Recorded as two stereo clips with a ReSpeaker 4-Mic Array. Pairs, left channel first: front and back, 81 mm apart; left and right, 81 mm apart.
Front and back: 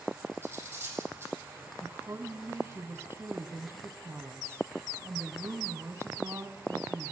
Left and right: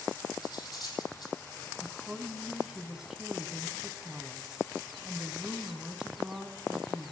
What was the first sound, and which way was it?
Cutlery clinking, 120° left.